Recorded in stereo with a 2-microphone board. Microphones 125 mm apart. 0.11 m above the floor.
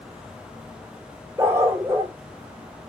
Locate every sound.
1.4 s a dog barking: 20° right (ahead or behind), 1.6 m